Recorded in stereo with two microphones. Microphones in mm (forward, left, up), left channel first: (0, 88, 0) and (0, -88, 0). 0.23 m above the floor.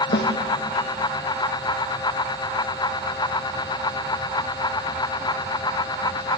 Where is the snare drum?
80° left, 3 m.